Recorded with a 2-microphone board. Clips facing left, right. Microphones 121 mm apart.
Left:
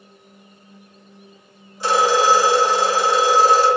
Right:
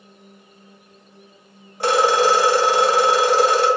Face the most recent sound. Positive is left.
turn(degrees=-60)  # may be behind; listen again after turning